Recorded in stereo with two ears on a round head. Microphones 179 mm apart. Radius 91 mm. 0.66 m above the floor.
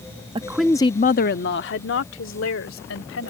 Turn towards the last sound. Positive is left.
turn(degrees=80)